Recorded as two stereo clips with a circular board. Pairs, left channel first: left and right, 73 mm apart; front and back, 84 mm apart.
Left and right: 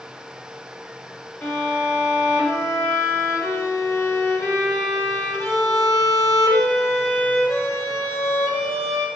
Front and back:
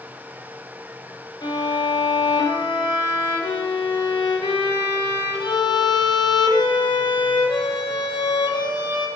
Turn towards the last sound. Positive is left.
turn(degrees=30)